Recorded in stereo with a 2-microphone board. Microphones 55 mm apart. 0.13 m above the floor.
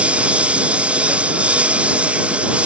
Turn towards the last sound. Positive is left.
turn(degrees=-25)  # may be behind; listen again after turning